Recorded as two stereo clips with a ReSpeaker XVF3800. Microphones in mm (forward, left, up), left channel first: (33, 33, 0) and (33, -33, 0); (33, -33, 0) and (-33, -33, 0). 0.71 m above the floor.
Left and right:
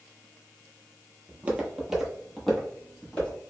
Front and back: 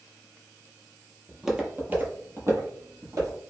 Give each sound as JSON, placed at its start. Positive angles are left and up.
{"t": 1.3, "sound": "footsteps", "azimuth_deg": -90, "distance_m": 0.7}